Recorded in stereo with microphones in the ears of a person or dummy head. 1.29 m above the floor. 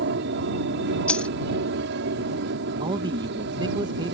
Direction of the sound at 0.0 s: 65° right (ahead or behind).